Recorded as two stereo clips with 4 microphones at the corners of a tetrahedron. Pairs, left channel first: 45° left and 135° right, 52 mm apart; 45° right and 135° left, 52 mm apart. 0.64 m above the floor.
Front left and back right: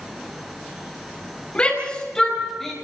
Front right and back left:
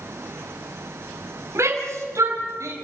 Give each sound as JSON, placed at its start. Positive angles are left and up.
{"t": 1.6, "sound": "a shout", "azimuth_deg": 115, "distance_m": 4.0}